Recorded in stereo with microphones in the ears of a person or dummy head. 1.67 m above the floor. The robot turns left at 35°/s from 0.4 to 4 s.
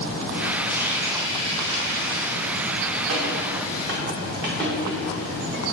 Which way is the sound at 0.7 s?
5° right (ahead or behind).